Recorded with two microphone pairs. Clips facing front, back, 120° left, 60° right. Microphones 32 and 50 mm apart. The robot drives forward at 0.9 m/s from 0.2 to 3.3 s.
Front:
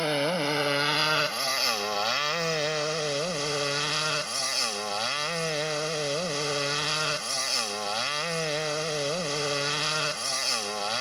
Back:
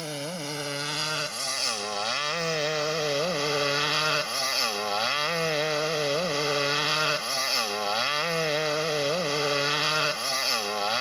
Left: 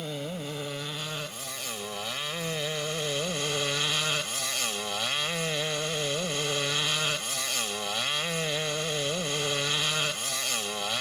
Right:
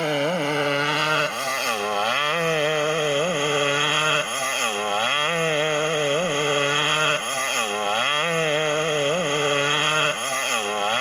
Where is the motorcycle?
55° right; by 11.0 s 105° right.